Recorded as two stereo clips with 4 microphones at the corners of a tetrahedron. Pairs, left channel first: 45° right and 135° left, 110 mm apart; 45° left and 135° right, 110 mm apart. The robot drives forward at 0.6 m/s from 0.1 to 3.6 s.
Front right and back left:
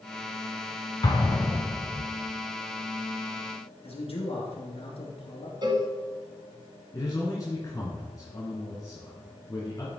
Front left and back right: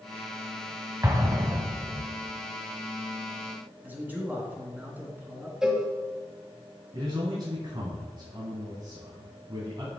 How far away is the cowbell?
About 1.4 m.